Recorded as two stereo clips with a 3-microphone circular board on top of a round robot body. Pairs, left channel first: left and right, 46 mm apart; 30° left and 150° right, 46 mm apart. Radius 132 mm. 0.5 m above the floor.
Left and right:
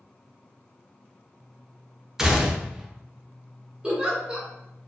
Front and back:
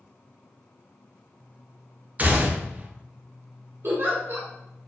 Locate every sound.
2.2 s a gunshot: 160° right, 0.7 m
3.8 s a giggle: 155° right, 1.1 m